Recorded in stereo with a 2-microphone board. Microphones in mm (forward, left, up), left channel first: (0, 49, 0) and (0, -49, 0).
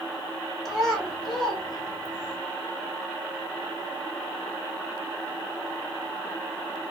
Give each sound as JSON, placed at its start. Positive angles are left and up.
{"t": 0.7, "sound": "a child speaking", "side_deg": 5, "distance_m": 1.5}